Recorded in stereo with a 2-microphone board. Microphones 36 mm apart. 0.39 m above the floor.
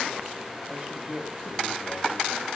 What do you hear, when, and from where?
0.7 s a man speaking: 20° right (ahead or behind), 2 m